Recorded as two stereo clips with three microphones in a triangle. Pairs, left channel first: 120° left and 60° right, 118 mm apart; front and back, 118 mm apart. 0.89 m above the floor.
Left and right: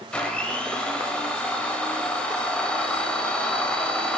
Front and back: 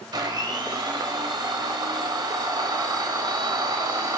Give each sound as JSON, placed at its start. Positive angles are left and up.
{"t": 0.1, "sound": "a blender", "azimuth_deg": -165, "distance_m": 0.7}